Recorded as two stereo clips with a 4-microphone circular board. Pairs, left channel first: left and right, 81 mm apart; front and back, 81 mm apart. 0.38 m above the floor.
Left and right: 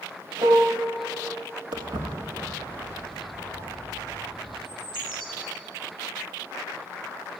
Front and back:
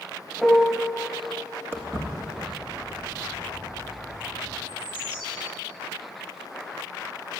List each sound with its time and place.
0.4 s a piano: 90° right, 0.8 m
1.7 s footsteps: 120° right, 1.5 m; by 4.5 s 125° right, 4.5 m
4.7 s a bird: 105° right, 3.5 m